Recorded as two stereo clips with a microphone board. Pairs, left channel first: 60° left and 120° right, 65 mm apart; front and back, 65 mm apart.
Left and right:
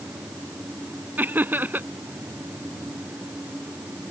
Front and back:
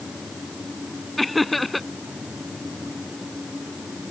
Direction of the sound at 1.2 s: 90° right.